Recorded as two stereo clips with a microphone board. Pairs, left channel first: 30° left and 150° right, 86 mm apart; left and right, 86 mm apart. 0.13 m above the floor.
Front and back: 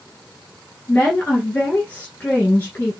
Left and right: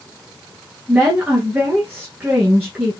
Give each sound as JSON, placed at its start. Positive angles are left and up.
{"t": 0.9, "sound": "a woman speaking", "azimuth_deg": -30, "distance_m": 1.7}